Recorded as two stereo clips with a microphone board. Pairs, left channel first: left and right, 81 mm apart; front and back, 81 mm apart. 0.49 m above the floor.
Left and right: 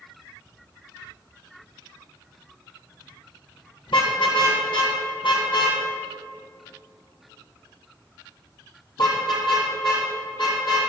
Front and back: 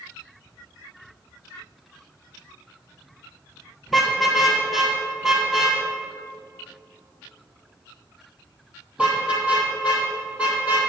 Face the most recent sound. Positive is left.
turn(degrees=110)